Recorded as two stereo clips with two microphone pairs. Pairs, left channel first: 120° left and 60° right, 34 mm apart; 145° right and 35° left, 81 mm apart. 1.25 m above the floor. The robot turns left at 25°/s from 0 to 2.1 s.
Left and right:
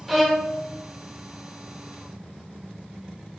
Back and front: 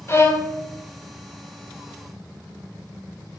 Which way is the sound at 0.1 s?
145° right.